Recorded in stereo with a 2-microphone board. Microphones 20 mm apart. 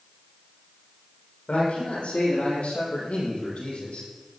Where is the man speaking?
70° left (ahead or behind), 7.5 m; by 4.1 s 80° left, 6 m.